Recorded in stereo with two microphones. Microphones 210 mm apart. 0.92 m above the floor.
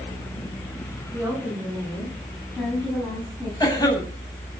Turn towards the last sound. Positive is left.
turn(degrees=20)  # may be behind; listen again after turning